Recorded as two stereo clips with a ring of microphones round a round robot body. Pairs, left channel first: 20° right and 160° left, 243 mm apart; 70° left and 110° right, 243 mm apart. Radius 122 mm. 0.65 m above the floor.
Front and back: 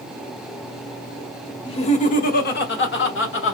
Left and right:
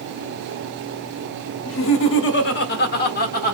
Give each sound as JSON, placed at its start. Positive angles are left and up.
{"t": 1.6, "sound": "laughter", "azimuth_deg": 45, "distance_m": 1.1}